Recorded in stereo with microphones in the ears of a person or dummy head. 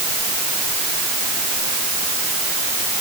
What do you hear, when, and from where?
Only background noise.